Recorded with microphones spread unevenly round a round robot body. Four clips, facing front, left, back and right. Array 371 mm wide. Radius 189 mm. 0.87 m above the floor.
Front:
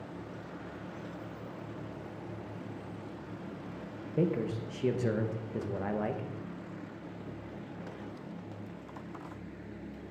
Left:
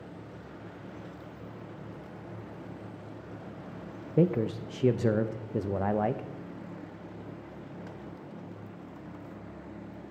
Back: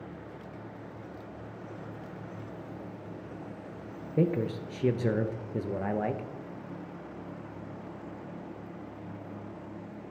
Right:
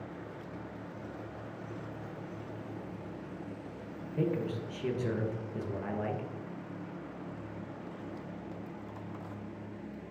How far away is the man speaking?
About 0.8 m.